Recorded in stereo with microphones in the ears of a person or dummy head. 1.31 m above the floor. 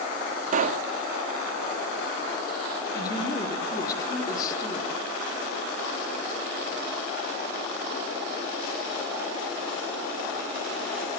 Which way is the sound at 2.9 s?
20° left (ahead or behind).